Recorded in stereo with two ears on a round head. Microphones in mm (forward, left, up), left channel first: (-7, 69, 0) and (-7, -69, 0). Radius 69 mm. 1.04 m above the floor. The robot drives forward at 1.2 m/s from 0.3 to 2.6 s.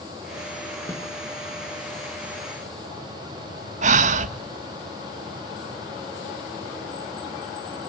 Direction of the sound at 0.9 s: 15° left (ahead or behind).